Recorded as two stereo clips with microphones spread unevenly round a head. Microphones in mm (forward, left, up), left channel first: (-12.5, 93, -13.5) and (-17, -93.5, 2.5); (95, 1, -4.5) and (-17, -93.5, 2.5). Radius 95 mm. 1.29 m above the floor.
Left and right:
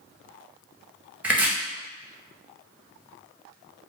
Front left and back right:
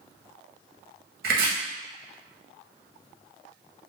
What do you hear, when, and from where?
1.2 s chopping: 175° right, 0.6 m